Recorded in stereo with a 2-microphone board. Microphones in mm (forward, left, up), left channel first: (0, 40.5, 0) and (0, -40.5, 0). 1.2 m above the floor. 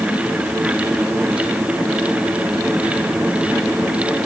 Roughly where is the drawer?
No drawer in this recording.